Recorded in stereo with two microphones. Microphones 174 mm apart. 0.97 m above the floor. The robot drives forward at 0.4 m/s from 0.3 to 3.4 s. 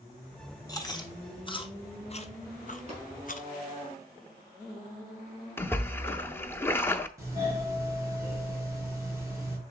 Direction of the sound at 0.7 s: 25° left (ahead or behind).